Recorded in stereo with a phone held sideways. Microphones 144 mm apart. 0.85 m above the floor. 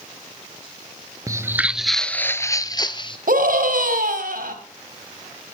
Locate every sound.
1.3 s footsteps: 25° right (ahead or behind), 0.8 m; by 3.2 s 35° left (ahead or behind), 1.2 m
3.3 s a scream: 80° right, 4.5 m